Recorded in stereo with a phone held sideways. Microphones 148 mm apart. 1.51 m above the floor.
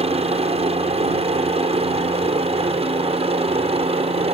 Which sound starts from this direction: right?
A helicopter, at 0.0 s.